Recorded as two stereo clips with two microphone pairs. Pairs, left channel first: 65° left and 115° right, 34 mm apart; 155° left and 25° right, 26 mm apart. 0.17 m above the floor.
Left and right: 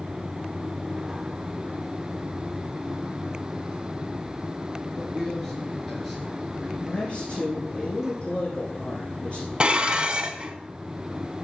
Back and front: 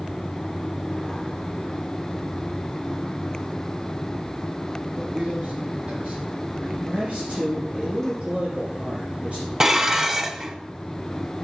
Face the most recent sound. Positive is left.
turn(degrees=-75)